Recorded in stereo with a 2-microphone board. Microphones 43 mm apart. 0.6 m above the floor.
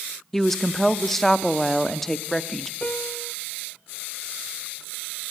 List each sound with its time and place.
0.3 s a woman speaking: 5° left (ahead or behind), 0.8 m
2.8 s a piano: 30° left (ahead or behind), 1.2 m